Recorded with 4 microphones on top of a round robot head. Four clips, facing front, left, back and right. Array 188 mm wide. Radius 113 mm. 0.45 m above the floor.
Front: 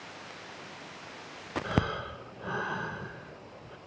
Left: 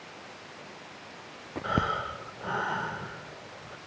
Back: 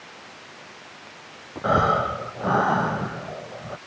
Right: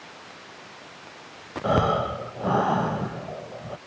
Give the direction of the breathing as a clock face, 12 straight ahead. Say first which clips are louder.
Right 8 dB, back 13 dB; 5 o'clock.